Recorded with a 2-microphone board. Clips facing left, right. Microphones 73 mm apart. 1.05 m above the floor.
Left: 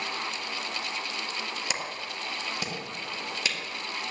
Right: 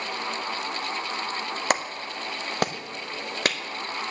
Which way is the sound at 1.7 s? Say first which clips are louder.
Right 7 dB; 55° right (ahead or behind).